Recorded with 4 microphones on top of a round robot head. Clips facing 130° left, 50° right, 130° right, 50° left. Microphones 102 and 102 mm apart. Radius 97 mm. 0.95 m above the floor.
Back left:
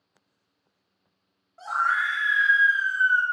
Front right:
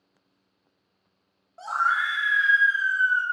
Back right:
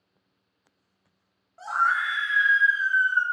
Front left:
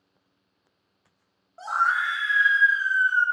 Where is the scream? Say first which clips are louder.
Even, even; 10° right, 0.9 m; by 3.2 s 90° left, 0.9 m.